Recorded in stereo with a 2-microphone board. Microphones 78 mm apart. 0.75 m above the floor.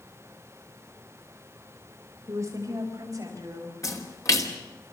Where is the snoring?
I don't hear snoring.